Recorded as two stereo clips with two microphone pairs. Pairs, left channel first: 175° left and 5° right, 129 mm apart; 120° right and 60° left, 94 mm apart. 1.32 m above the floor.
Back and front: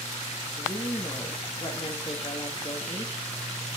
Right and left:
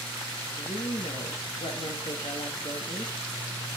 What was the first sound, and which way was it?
A woman speaking, 135° right.